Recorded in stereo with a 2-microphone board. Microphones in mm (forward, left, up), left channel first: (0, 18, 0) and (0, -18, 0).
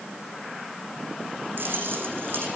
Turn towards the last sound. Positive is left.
turn(degrees=-70)  # may be behind; listen again after turning